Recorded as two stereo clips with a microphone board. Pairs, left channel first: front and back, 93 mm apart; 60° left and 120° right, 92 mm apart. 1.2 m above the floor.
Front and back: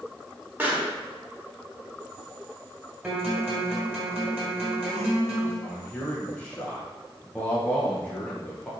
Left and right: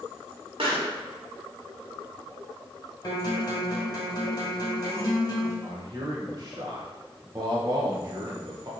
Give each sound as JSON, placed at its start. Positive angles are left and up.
{"t": 0.6, "sound": "a pop", "azimuth_deg": -110, "distance_m": 1.5}
{"t": 3.0, "sound": "a guitar", "azimuth_deg": 105, "distance_m": 1.8}
{"t": 5.6, "sound": "a man speaking", "azimuth_deg": -75, "distance_m": 1.0}